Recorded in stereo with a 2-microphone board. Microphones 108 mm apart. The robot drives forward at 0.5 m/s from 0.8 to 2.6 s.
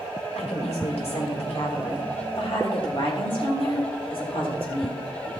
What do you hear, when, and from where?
0.3 s a woman speaking: 75° left (ahead or behind), 3 m; by 5.0 s 60° left (ahead or behind), 3.5 m